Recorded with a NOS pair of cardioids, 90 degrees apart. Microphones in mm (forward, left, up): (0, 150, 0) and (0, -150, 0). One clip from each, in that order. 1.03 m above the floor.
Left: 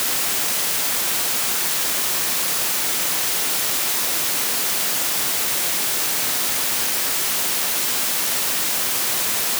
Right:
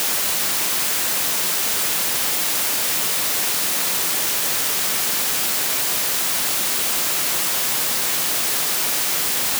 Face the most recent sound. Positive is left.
No sound to turn to.